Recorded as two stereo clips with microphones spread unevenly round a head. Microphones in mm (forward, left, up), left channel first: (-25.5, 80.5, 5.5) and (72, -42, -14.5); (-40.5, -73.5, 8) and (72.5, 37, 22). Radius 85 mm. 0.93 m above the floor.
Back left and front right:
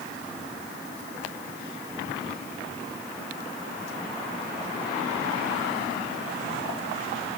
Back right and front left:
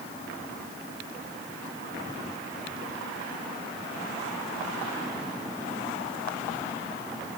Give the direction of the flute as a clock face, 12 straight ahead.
No flute in this recording.